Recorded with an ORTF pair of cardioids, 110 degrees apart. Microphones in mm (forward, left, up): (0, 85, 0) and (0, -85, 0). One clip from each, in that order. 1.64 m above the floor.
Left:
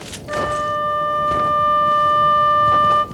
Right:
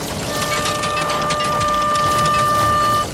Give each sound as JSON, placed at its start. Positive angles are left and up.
{"t": 0.3, "sound": "a flute", "azimuth_deg": 5, "distance_m": 0.7}